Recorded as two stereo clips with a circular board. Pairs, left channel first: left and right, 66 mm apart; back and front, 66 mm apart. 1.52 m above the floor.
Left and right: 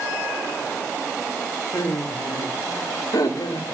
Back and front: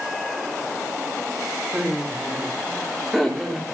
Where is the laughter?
75° left, 3.5 m; by 3.7 s 90° left, 4.5 m.